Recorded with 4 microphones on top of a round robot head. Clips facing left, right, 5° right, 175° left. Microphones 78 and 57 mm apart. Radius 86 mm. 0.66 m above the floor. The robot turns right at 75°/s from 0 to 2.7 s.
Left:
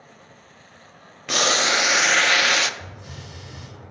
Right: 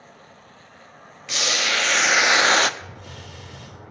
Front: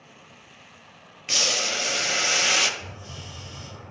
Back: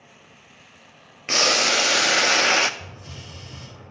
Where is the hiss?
165° left, 5 m.